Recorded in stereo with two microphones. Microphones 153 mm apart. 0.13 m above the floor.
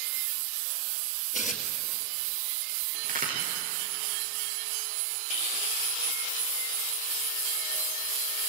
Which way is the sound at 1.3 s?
55° left (ahead or behind).